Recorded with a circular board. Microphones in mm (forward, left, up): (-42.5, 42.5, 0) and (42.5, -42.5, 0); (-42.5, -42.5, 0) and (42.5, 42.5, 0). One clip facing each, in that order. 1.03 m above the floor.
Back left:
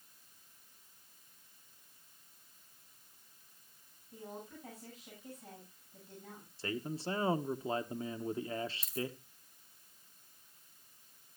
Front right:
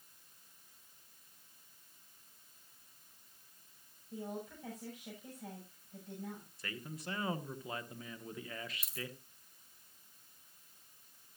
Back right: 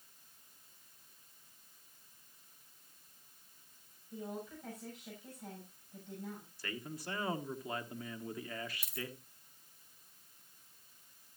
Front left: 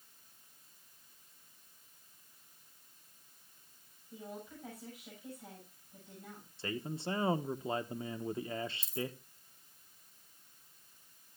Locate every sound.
4.1 s a woman speaking: 40° right, 7.5 m
6.6 s a man speaking: 95° left, 0.9 m
8.8 s a dropped coin: 105° right, 2 m